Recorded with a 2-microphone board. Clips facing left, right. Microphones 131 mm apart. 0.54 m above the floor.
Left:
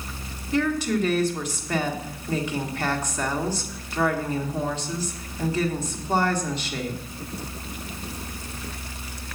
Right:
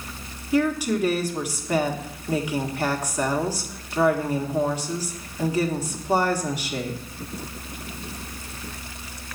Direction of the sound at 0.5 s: 10° right (ahead or behind).